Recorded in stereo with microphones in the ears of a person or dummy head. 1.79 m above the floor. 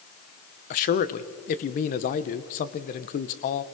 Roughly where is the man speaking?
Left.